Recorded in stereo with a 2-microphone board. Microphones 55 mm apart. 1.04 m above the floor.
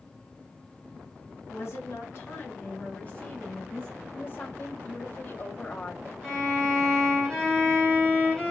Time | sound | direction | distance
1.5 | a woman speaking | 55° left (ahead or behind) | 1.7 m
4.2 | a woman speaking | 40° left (ahead or behind) | 0.9 m
6.2 | a violin | 10° left (ahead or behind) | 2 m